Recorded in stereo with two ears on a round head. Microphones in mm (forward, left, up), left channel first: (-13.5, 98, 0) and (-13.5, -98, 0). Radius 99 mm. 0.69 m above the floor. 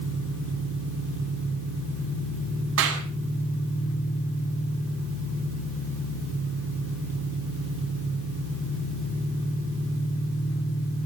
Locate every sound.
0.0 s an engine running: 70° left (ahead or behind), 7.5 m
2.8 s a clap: 65° right (ahead or behind), 5.5 m